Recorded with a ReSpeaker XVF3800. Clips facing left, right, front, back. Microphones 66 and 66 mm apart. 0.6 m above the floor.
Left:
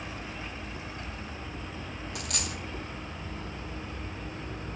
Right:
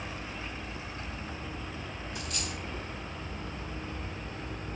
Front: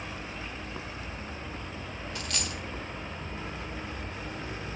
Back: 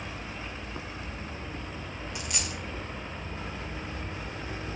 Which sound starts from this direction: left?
A dropped coin, at 2.1 s.